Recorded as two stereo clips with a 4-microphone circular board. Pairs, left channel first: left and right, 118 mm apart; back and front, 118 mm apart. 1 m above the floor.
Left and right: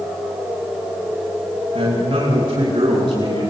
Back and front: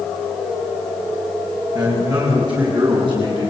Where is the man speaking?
50° right, 7 m; by 3.5 s 40° right, 9 m.